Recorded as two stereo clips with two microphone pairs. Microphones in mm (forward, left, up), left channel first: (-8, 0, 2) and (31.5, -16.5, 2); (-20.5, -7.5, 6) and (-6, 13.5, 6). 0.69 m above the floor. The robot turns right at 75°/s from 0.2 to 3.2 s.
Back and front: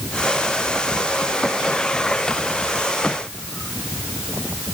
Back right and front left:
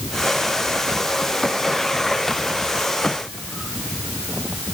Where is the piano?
I don't hear a piano.